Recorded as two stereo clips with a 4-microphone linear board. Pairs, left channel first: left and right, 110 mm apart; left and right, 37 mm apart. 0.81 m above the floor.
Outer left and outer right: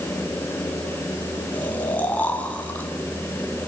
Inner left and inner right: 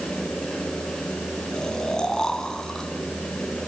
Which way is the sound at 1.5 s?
15° left (ahead or behind).